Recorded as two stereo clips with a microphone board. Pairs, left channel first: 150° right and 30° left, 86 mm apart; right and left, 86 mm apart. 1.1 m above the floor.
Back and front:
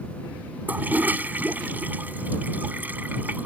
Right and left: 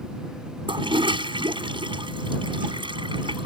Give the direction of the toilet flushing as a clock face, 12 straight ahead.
9 o'clock.